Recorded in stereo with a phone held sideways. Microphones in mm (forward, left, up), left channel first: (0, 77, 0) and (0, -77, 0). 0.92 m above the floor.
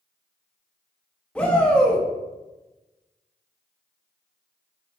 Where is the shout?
5° left (ahead or behind), 1.6 m.